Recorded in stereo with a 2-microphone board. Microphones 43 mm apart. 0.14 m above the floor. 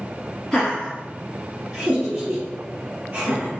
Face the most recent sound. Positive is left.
turn(degrees=-45)  # may be behind; listen again after turning